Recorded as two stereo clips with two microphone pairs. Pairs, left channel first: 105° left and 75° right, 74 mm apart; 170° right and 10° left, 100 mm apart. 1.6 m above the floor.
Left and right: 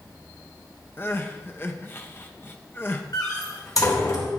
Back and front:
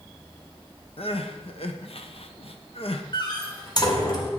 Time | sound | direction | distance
1.0 | crying | 165° left | 1.1 m
3.1 | a door slam | 140° left | 3.5 m